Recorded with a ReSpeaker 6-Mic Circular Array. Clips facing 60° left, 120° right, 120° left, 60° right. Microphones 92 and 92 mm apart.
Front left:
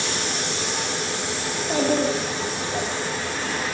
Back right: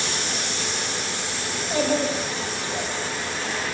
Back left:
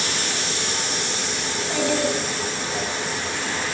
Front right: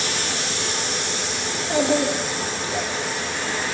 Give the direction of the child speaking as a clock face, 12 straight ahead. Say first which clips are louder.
Front left 1 dB, front right 3 dB; 12 o'clock.